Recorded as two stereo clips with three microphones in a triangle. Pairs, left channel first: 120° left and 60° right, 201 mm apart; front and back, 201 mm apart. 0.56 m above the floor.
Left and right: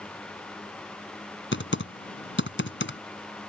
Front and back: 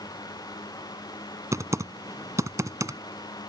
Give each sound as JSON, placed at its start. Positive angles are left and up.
{"t": 1.5, "sound": "typing on a keyboard", "azimuth_deg": 105}